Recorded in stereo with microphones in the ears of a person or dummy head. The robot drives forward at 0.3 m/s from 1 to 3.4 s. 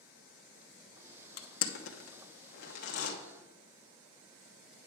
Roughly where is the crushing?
Left.